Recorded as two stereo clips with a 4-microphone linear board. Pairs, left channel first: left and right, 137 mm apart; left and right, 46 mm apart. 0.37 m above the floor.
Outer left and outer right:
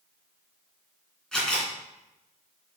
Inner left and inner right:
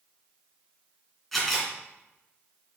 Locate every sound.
1.3 s a camera shutter: 5° left (ahead or behind), 2.5 m